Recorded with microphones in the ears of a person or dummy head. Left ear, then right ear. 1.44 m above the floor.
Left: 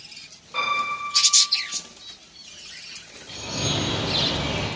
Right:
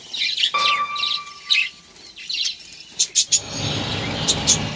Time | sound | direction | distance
0.5 | a piano | 70° right (ahead or behind) | 0.8 m
3.3 | a bird | 10° right (ahead or behind) | 1.7 m